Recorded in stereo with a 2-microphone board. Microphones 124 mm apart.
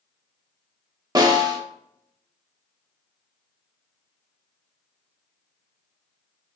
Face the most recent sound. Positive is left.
turn(degrees=-30)  # may be behind; listen again after turning